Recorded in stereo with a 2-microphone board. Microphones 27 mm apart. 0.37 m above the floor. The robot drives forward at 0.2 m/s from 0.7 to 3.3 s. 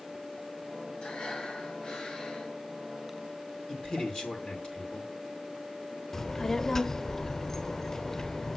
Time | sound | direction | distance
1.0 | breathing | 35° left (ahead or behind) | 3 m
3.7 | a man speaking | 40° left (ahead or behind) | 5 m
6.1 | a child speaking | 15° left (ahead or behind) | 0.6 m